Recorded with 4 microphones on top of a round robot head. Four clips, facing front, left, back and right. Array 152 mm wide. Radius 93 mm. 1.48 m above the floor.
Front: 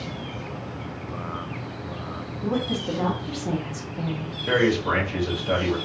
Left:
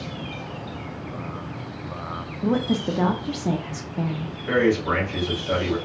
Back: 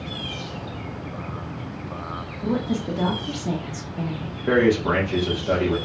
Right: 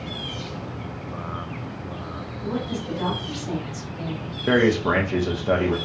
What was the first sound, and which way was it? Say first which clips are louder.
A woman speaking: left 6 dB, back 2 dB; 95° left.